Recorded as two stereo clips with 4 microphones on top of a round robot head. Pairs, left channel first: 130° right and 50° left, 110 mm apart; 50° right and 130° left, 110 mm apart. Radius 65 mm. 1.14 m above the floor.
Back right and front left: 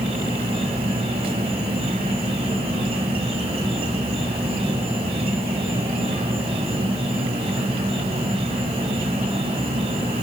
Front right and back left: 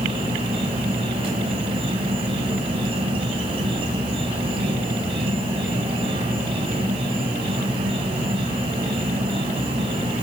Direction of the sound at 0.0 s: 90° left.